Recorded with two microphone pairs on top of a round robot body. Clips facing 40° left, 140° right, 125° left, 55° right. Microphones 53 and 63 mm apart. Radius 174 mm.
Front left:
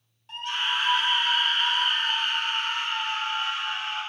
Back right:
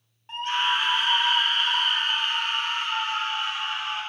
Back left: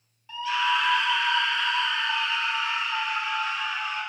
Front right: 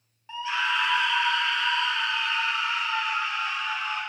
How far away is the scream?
About 0.8 m.